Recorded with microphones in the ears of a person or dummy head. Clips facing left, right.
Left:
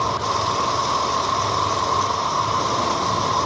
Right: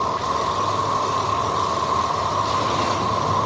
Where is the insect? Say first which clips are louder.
Even; 35° left (ahead or behind).